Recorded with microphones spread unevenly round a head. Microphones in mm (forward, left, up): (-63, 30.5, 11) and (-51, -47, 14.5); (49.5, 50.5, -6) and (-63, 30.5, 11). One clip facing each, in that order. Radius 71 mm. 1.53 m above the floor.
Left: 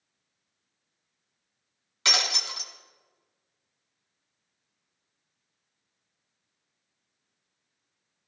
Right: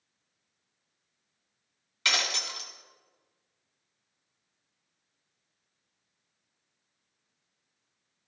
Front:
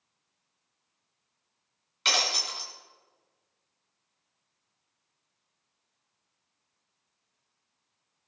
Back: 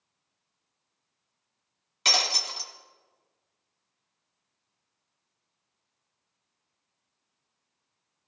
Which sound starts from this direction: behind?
Breaking glass, at 2.0 s.